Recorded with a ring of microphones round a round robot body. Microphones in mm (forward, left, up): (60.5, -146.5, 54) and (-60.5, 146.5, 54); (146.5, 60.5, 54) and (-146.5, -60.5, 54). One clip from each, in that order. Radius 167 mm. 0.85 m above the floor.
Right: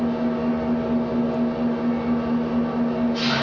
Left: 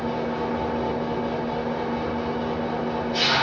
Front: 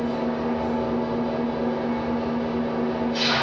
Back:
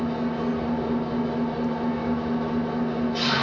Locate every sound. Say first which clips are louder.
0.0 s an engine running: right 2 dB, front 2 dB; 90° left, 6 m